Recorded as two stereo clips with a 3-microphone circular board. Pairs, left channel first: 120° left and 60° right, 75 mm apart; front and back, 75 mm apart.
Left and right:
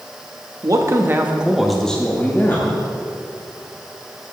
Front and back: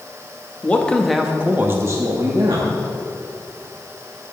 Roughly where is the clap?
No clap in this recording.